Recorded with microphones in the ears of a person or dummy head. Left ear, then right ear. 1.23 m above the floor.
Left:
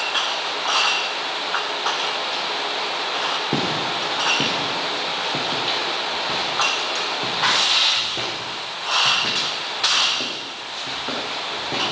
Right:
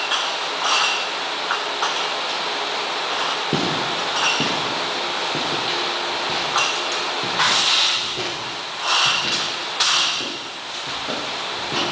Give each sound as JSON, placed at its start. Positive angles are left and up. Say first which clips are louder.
{"t": 3.5, "sound": "footsteps", "louder": "right 1 dB", "side_deg": 5, "distance_m": 1.6}